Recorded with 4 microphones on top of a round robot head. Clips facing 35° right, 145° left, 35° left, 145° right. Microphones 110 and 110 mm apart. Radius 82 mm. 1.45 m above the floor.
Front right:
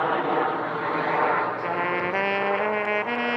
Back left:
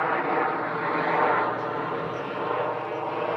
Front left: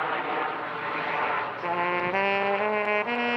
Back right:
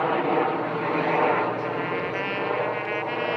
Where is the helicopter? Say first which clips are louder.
Front right 1 dB, back right 6 dB; 110° right; by 3.4 s 165° right.